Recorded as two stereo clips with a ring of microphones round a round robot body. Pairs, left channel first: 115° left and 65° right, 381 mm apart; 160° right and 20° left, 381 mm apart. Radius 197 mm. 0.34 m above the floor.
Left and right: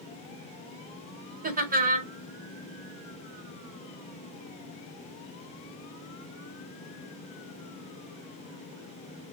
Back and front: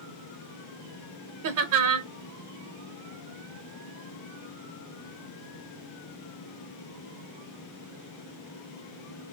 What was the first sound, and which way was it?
Laughter, 5° right.